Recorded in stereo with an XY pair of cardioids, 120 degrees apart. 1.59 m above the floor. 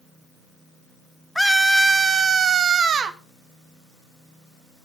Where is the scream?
10° left, 0.7 m; by 3.2 s 50° right, 1.1 m.